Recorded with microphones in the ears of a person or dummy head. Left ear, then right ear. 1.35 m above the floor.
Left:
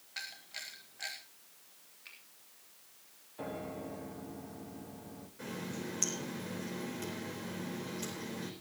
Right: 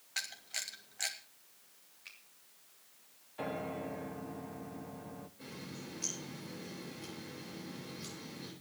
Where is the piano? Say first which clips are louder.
Right 3 dB; 55° right (ahead or behind), 0.9 m.